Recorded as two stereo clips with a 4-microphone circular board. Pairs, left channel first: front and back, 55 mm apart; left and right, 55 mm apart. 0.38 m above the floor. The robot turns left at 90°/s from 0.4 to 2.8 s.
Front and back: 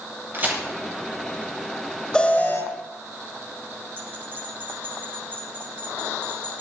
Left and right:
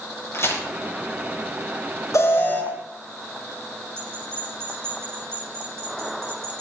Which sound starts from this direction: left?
An alarm, at 2.1 s.